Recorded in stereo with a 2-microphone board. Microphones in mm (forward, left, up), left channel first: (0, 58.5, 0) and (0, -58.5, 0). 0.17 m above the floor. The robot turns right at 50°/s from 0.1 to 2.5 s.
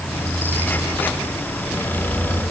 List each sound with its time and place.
Only background noise.